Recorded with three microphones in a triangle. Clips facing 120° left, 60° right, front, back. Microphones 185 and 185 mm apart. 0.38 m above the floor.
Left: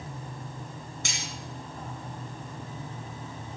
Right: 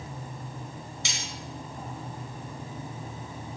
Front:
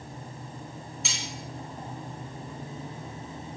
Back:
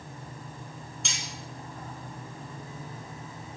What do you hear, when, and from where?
1.1 s cutlery clinking: 85° left, 2.0 m